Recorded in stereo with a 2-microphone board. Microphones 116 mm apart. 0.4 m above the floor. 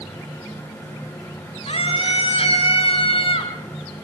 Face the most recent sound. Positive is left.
turn(degrees=50)  # may be behind; listen again after turning